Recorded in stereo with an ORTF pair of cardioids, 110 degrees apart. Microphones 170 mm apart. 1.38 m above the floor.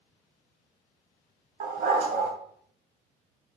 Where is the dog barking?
55° right, 3 m.